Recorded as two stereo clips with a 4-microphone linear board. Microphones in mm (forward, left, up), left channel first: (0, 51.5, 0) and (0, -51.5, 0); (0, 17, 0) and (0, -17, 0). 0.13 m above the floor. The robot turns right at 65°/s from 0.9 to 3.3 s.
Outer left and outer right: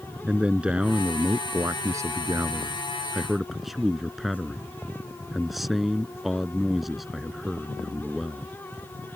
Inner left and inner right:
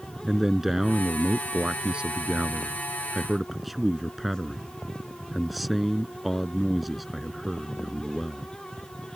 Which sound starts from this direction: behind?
A man speaking, at 0.3 s.